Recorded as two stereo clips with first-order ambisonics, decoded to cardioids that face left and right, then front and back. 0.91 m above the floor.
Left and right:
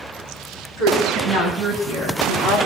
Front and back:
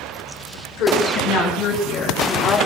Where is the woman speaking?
35° right, 6 m; by 2.6 s 40° right, 3.5 m.